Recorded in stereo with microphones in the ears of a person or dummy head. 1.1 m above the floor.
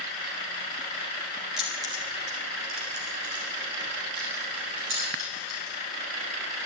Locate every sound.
1.6 s keys jangling: 5° left (ahead or behind), 1.3 m; by 5.8 s 65° right (ahead or behind), 5.5 m